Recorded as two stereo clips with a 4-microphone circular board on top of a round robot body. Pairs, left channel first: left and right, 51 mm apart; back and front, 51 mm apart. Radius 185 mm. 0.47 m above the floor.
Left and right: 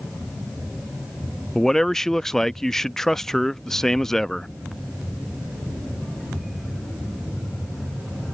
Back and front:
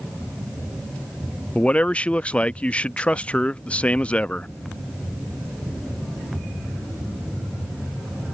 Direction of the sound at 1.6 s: 165° left.